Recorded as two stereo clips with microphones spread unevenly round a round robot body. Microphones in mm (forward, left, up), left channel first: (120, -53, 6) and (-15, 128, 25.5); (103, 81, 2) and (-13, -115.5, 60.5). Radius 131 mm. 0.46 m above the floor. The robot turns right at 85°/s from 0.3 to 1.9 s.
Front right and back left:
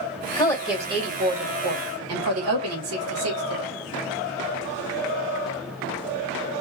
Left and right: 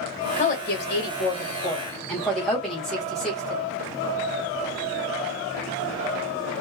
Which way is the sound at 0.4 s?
10° left.